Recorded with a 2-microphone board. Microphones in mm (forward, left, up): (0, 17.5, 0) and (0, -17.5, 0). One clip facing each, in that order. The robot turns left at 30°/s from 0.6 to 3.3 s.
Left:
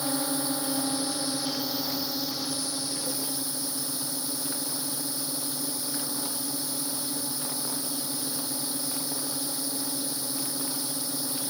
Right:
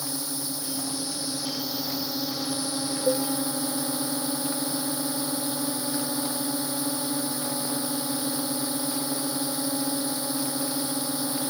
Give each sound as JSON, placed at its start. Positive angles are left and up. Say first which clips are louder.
{"t": 0.0, "sound": "a drone", "louder": "left 4 dB", "azimuth_deg": 40}
{"t": 3.1, "sound": "a cowbell", "louder": "right 10 dB", "side_deg": -80}